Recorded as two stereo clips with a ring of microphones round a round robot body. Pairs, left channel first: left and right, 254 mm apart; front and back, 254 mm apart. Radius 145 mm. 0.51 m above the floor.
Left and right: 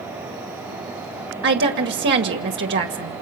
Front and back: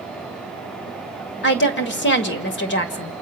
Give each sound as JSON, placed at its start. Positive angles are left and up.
{"t": 1.4, "sound": "a woman speaking", "azimuth_deg": -45, "distance_m": 1.8}